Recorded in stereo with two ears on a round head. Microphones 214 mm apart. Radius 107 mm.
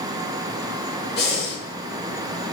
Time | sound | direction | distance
1.2 | breathing | 45° left (ahead or behind) | 1.2 m